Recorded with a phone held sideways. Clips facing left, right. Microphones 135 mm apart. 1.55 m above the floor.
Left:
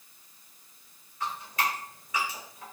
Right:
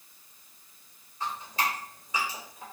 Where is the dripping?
30° right (ahead or behind), 1.5 m.